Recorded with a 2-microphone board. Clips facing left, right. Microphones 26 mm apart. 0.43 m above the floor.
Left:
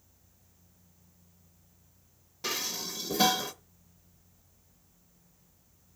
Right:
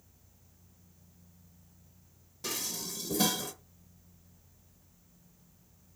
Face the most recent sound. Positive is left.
turn(degrees=30)  # may be behind; listen again after turning